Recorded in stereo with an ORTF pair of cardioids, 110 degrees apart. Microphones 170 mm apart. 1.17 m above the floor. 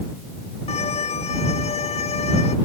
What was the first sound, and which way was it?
A violin, 40° left.